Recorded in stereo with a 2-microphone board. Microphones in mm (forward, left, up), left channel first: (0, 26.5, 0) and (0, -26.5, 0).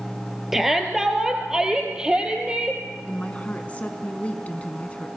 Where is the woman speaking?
25° left (ahead or behind), 1.8 m.